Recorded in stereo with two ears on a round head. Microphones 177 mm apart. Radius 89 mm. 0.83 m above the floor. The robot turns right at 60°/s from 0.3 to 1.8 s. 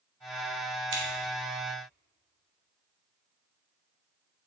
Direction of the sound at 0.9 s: 65° right (ahead or behind).